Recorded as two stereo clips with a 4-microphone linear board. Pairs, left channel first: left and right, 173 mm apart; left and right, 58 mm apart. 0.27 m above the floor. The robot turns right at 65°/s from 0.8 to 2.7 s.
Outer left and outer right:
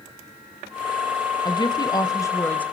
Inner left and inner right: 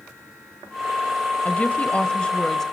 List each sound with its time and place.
1.4 s a woman speaking: 25° left (ahead or behind), 1.2 m; by 2.6 s 10° left (ahead or behind), 1.2 m